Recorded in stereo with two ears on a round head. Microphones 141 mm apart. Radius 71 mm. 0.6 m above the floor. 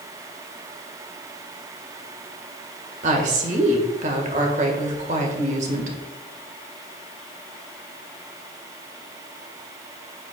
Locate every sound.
3.0 s a woman speaking: 50° right (ahead or behind), 1.9 m